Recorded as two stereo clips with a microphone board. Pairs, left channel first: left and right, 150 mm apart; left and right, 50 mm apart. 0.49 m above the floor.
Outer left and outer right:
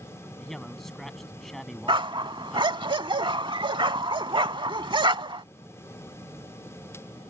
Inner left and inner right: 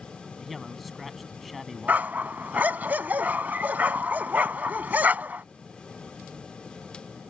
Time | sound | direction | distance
0.4 | a man speaking | centre (ahead or behind) | ?
1.9 | a dog barking | 35° right (ahead or behind) | ?